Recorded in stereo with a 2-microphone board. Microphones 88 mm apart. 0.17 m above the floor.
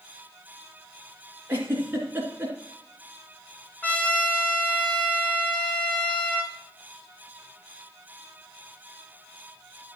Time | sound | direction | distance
1.5 | a giggle | 20° right (ahead or behind) | 2 m
3.8 | a trumpet | 20° left (ahead or behind) | 2 m